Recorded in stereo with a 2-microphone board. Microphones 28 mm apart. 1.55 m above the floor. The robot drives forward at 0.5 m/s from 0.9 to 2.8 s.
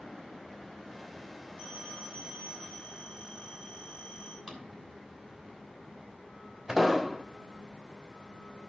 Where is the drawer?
25° right (ahead or behind), 2.5 m.